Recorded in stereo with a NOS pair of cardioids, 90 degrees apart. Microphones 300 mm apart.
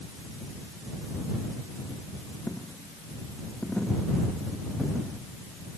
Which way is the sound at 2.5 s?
Straight ahead.